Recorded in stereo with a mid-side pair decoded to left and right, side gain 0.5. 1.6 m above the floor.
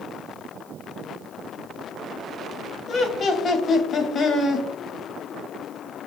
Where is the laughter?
45° left, 0.8 m.